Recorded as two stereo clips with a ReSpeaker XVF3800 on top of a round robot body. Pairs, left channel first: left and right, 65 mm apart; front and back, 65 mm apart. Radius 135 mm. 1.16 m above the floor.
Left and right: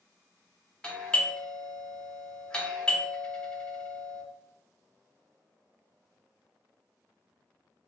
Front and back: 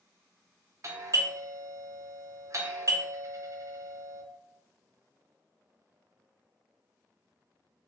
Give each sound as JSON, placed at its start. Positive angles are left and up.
{"t": 0.8, "sound": "a doorbell", "azimuth_deg": 165, "distance_m": 1.1}